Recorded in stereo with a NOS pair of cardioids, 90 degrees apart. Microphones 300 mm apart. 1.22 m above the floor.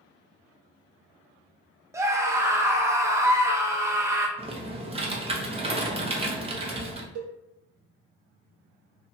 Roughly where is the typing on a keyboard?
Ahead.